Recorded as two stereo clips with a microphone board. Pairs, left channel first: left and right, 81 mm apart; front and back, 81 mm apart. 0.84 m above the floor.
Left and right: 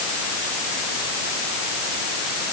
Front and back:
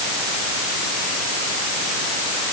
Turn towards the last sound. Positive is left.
No sound to turn to.